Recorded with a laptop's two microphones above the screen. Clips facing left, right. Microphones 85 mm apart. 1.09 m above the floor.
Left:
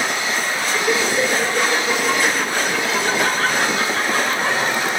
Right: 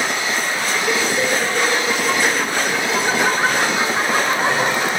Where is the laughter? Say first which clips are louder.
Left 2 dB; 15° left (ahead or behind), 5.5 m; by 5.0 s 35° right (ahead or behind), 6 m.